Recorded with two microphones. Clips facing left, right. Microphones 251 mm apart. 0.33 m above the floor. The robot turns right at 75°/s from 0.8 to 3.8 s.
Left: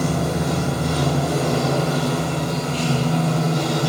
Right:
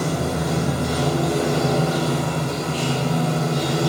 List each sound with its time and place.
0.0 s running water: 140° left, 1.0 m; by 3.9 s 5° left, 1.0 m